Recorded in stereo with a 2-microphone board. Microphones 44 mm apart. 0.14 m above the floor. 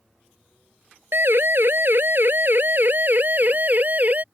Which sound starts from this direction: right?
A siren, at 1.1 s.